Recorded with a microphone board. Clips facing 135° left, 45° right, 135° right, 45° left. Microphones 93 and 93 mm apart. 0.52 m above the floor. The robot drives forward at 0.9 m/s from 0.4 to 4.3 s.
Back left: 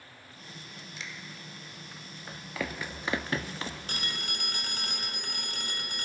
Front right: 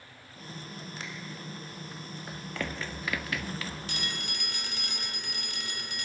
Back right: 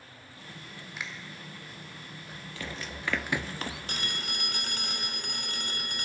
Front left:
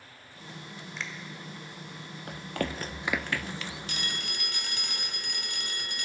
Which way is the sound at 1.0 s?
55° right.